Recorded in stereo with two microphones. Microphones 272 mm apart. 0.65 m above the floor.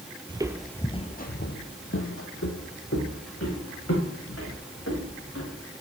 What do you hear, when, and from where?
0.3 s footsteps: 20° right (ahead or behind), 0.7 m; by 5.7 s 55° left (ahead or behind), 4 m